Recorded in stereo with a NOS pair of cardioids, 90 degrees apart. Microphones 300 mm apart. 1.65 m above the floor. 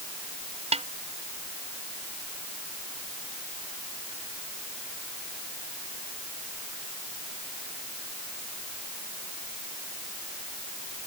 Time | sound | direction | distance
0.7 | a snare drum | 20° right | ?